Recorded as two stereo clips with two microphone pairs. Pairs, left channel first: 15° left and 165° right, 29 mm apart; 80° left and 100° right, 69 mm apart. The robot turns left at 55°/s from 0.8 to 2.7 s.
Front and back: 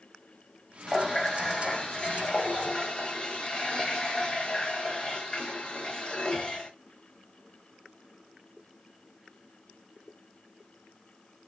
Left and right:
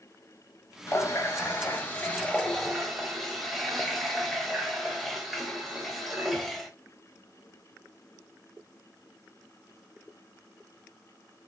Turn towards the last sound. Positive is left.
turn(degrees=-15)